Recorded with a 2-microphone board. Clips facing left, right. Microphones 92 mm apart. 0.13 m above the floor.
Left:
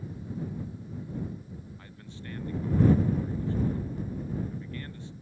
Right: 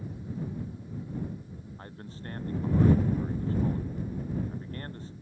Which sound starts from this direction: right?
A man speaking, at 1.8 s.